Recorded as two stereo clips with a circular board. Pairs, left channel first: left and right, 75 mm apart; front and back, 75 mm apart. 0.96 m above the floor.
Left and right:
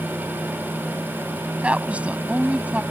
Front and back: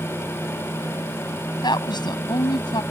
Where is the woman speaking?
15° right.